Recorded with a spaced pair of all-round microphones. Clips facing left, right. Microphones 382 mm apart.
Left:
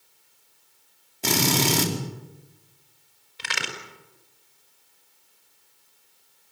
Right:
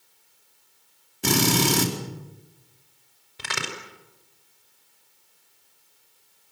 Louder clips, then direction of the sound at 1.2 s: Right 2 dB; 20° right (ahead or behind).